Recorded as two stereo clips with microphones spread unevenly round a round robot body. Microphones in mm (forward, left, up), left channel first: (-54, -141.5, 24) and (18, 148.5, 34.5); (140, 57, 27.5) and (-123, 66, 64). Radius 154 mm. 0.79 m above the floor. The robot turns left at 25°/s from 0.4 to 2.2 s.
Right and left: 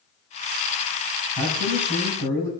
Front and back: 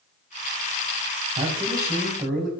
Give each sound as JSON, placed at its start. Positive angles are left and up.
{"t": 1.4, "sound": "a man speaking", "azimuth_deg": 105, "distance_m": 4.5}